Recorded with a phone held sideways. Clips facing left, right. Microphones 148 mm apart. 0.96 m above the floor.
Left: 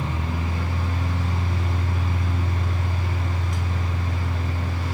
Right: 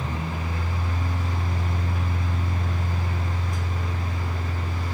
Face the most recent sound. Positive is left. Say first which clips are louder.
# left 2 dB
turn(degrees=80)